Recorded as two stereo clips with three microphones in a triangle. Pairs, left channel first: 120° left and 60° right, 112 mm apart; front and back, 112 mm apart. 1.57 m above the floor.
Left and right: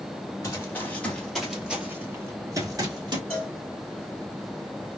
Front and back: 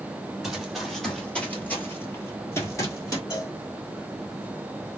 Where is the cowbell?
45° left, 1.6 m.